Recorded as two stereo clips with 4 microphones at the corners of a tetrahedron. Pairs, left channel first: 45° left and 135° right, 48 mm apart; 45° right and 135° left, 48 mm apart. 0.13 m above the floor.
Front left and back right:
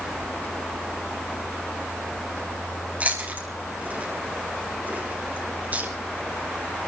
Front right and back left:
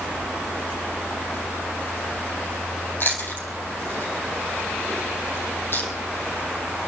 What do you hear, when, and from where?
3.0 s chewing: 80° right, 3 m